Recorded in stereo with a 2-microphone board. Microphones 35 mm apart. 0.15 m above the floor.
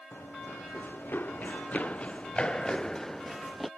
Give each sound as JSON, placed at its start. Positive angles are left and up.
{"t": 0.1, "sound": "running footsteps", "side_deg": 85}